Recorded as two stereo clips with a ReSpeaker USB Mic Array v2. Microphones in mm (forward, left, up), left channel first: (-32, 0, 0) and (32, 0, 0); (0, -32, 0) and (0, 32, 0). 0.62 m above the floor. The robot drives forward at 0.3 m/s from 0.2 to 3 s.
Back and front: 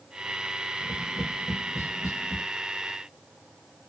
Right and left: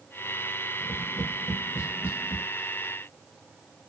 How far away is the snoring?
No snoring in this recording.